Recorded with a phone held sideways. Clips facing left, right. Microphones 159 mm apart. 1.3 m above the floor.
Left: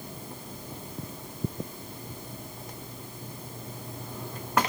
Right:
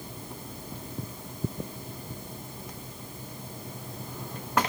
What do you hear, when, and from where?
Only background noise.